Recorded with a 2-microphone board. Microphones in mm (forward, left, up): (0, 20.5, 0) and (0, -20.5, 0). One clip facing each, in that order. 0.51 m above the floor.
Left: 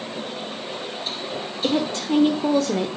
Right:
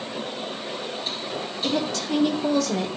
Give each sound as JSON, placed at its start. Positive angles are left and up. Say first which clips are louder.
{"t": 1.6, "sound": "a woman speaking", "louder": "left 3 dB", "side_deg": 30, "distance_m": 1.4}